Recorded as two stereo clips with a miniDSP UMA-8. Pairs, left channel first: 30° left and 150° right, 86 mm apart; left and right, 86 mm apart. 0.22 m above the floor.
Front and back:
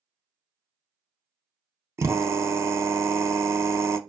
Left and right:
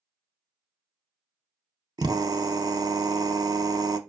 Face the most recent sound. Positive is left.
turn(degrees=-105)